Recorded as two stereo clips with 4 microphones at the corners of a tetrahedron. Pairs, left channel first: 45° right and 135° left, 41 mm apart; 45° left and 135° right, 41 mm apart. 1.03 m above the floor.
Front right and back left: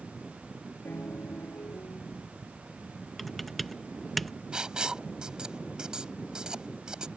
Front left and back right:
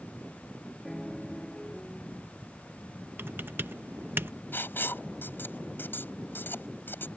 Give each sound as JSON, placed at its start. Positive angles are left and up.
{"t": 0.8, "sound": "a piano", "azimuth_deg": -40}
{"t": 3.2, "sound": "typing on a keyboard", "azimuth_deg": -135}
{"t": 4.5, "sound": "writing", "azimuth_deg": 65}